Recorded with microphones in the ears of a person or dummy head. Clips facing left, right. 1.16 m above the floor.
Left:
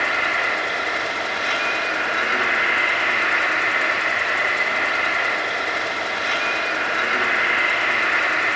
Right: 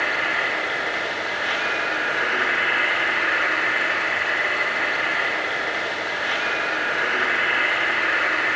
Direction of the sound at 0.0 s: 10° right (ahead or behind).